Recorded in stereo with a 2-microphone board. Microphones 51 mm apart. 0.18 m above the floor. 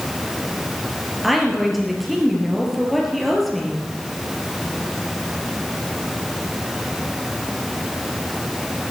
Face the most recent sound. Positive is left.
turn(degrees=-5)  # may be behind; listen again after turning